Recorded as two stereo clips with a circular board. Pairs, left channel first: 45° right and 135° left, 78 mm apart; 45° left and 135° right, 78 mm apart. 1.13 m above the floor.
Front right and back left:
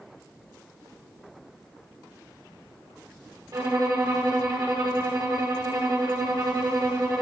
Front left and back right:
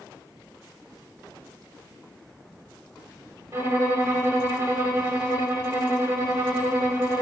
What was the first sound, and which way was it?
A violin, 170° left.